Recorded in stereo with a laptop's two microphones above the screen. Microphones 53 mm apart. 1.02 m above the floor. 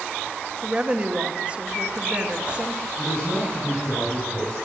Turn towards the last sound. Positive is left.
turn(degrees=20)  # may be behind; listen again after turning